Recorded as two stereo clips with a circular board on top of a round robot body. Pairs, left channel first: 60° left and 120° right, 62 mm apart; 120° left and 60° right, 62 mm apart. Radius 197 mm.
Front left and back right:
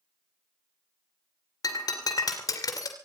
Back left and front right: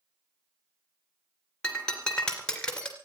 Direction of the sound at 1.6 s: 40° left.